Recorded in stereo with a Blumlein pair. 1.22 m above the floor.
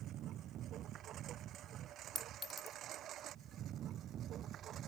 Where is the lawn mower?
35° right; by 4.9 s 30° right.